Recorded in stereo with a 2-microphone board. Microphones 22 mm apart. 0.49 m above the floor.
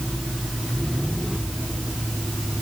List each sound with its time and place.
Only background noise.